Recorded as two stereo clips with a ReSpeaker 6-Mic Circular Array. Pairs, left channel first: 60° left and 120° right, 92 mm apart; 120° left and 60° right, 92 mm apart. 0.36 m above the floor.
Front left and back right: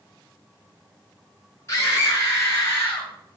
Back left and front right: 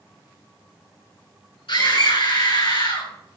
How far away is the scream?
About 5 m.